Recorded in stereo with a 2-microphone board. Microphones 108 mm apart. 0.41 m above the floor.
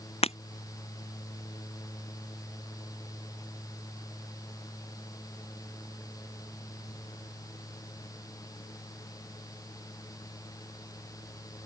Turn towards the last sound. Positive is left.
turn(degrees=70)  # may be behind; listen again after turning